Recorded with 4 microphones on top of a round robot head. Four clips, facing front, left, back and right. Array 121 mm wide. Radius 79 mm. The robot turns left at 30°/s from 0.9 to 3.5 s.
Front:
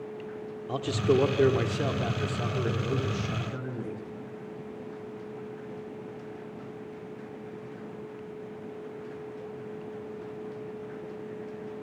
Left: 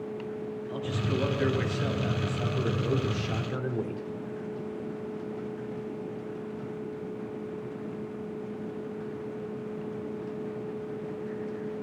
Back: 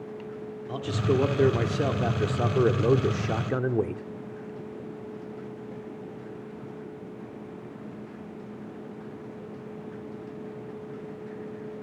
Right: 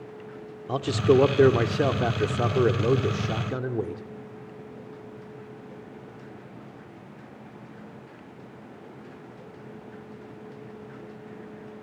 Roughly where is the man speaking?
Right.